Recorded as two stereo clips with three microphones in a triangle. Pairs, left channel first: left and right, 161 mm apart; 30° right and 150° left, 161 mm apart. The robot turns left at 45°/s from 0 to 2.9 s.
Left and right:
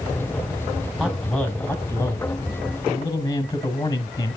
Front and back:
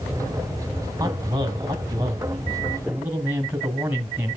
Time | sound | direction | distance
1.0 | a man speaking | straight behind | 1.1 m